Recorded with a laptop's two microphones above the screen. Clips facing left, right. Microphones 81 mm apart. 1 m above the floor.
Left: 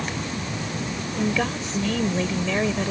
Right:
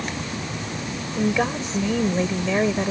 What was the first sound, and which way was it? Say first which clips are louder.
A woman speaking: right 3 dB; 15° right (ahead or behind).